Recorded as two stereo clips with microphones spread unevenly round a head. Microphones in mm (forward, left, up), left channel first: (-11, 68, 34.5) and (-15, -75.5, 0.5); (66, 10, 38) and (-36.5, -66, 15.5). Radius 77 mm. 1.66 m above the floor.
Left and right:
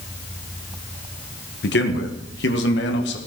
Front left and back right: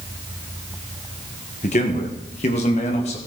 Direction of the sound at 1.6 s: 85° left.